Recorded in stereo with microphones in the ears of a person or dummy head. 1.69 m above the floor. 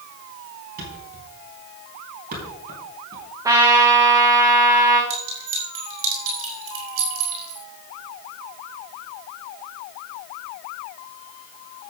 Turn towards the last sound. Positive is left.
turn(degrees=-80)